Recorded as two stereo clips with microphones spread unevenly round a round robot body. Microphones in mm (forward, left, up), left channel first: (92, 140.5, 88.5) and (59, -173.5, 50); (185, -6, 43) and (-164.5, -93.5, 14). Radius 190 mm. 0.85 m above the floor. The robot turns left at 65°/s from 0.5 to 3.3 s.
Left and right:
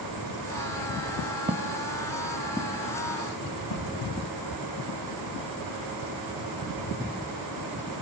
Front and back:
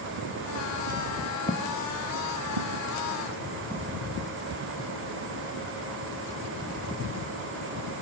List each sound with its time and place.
1.5 s footsteps: 25° right, 0.9 m; by 4.6 s 115° left, 4 m